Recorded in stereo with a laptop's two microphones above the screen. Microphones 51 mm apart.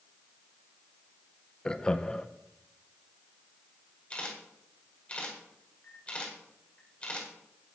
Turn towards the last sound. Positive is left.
turn(degrees=25)  # may be behind; listen again after turning